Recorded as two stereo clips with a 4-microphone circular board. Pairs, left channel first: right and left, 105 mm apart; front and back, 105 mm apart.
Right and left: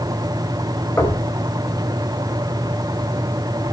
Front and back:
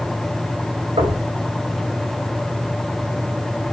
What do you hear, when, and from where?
1.0 s knocking: 160° right, 5.5 m